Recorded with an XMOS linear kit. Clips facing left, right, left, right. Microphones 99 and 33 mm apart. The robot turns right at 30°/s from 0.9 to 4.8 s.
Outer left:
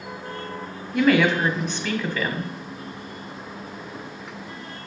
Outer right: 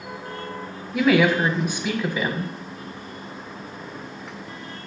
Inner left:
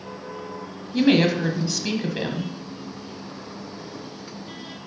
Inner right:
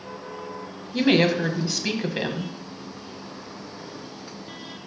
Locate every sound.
0.9 s a woman speaking: centre (ahead or behind), 0.9 m; by 2.5 s 15° right (ahead or behind), 0.9 m